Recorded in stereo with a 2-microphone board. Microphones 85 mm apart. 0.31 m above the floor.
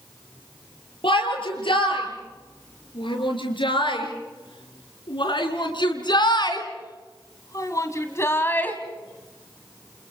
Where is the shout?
80° left, 7 m; by 8.8 s 20° left (ahead or behind), 2 m.